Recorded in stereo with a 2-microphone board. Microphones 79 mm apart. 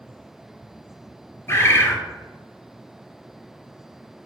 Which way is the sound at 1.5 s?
35° left (ahead or behind).